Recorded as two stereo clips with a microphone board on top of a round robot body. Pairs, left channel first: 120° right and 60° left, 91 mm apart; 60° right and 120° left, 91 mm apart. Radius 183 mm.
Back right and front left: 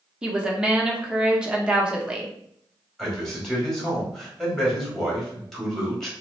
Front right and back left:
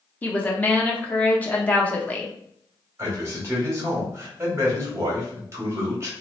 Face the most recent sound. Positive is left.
turn(degrees=155)